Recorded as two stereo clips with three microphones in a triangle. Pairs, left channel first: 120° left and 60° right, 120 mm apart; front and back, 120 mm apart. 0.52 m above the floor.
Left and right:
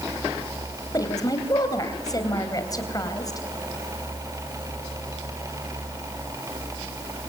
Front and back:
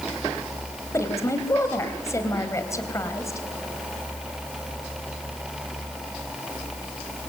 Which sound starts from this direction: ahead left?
A woman speaking, at 0.9 s.